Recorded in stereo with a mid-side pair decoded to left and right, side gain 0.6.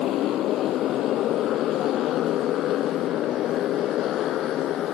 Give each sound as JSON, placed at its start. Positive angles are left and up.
{"t": 0.0, "sound": "a motorcycle", "azimuth_deg": 60}